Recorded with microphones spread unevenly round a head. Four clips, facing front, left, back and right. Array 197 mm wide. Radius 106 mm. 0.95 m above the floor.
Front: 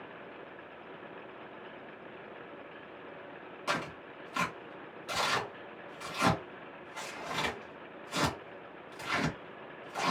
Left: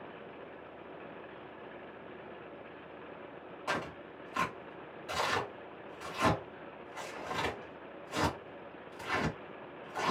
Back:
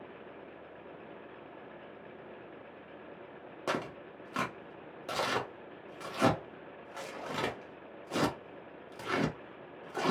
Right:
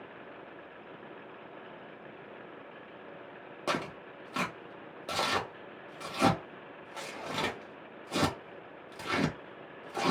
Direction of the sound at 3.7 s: 130° right.